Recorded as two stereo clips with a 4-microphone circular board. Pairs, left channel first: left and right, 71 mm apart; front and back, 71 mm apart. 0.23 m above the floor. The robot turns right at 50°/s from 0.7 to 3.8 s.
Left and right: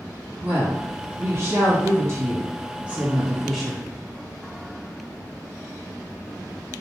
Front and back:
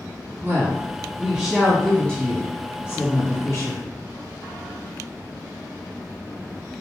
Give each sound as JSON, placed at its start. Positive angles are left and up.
{"t": 0.4, "sound": "a woman speaking", "azimuth_deg": -140, "distance_m": 1.7}